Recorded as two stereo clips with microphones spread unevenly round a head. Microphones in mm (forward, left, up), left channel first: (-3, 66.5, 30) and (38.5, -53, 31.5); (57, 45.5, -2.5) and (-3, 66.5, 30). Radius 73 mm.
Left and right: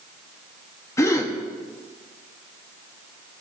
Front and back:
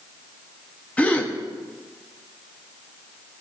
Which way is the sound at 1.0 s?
45° left.